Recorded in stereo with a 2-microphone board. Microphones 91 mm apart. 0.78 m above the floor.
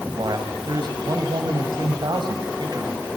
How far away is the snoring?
I don't hear snoring.